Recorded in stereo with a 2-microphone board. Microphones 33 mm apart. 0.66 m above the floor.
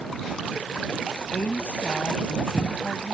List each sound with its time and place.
1.3 s a woman speaking: 45° left (ahead or behind)